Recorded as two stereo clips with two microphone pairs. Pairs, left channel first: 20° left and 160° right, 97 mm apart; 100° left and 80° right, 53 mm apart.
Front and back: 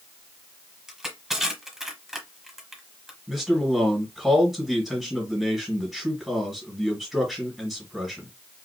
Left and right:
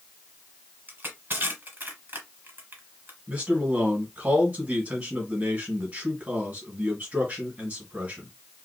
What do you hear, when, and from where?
0.9 s crushing: 75° right, 1.4 m
3.3 s a man speaking: 70° right, 1.7 m